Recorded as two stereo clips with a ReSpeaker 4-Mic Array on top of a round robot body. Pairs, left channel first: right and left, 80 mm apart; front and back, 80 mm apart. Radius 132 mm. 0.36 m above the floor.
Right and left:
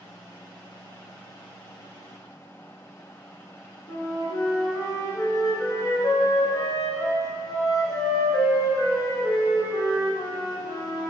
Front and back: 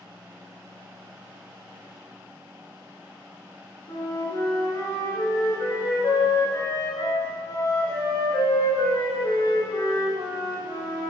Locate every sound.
3.9 s a flute: 40° right, 1.7 m